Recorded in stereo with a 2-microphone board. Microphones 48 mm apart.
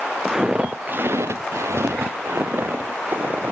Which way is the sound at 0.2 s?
5° right (ahead or behind).